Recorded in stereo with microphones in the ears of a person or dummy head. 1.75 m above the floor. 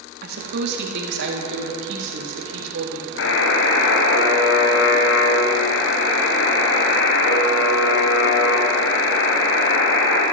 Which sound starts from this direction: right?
A woman speaking, at 0.2 s.